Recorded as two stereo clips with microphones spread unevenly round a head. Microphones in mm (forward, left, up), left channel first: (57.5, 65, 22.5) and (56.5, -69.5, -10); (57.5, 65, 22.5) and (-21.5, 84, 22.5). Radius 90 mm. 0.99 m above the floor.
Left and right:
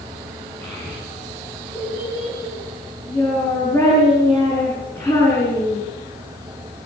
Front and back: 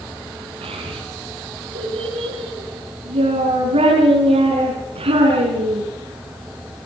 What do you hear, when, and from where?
0.6 s a child speaking: 165° left, 6 m